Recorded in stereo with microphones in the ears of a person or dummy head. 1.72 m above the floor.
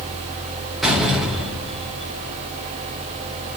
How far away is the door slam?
About 4.5 m.